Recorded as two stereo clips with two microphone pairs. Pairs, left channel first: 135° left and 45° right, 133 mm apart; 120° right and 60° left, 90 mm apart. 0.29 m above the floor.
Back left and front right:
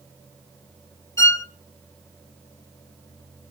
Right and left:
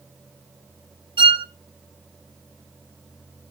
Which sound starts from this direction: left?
A violin, at 1.2 s.